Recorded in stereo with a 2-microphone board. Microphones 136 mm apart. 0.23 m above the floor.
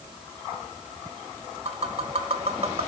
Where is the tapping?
50° right (ahead or behind), 0.7 m.